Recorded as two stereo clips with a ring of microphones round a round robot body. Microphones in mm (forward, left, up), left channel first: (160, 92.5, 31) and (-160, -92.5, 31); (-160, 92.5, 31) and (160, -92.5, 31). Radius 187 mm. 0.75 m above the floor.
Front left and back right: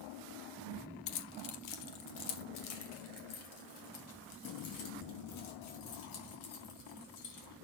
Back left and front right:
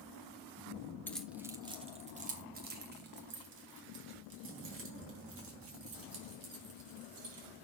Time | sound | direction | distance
1.1 | keys jangling | 65° left | 1.1 m